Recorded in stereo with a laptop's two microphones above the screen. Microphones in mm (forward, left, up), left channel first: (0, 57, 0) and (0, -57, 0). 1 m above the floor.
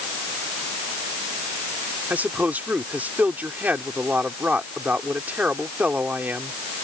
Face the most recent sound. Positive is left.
turn(degrees=-15)  # may be behind; listen again after turning